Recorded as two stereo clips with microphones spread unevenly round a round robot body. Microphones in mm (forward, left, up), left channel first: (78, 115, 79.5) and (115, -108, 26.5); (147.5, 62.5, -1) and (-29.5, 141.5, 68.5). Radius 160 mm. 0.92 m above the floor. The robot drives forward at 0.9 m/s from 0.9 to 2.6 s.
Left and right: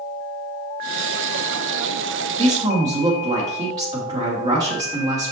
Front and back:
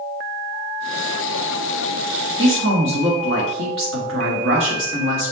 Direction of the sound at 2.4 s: 150° right.